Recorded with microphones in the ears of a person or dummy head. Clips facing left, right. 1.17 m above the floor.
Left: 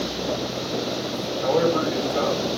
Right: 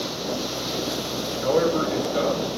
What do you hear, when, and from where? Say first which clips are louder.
1.4 s a man speaking: even; 5° right (ahead or behind), 4 m